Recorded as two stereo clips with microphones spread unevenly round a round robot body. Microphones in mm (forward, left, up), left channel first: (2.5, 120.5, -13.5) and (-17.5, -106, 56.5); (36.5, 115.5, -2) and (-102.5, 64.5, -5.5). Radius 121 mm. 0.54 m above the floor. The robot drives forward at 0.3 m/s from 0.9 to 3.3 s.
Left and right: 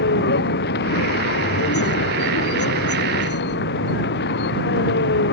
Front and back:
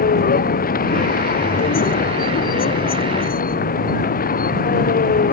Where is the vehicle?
40° left.